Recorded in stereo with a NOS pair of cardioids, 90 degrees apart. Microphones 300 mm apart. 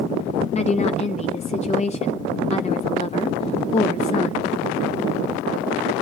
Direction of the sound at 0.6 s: 20° left.